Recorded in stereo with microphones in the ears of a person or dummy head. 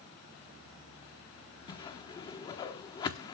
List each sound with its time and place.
1.7 s a whoosh: 25° left (ahead or behind), 1.1 m